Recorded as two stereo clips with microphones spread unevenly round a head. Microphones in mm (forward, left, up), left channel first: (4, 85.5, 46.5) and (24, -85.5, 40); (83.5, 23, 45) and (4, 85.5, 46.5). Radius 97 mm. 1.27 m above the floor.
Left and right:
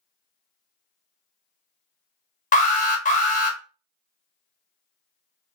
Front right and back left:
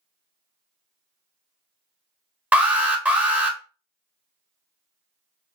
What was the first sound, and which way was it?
An alarm, 65° left.